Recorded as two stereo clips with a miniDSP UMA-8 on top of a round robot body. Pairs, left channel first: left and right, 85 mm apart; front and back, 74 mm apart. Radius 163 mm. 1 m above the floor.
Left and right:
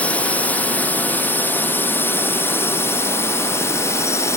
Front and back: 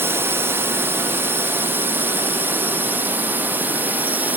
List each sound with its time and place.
0.0 s a drone: 155° left; by 4.4 s 125° left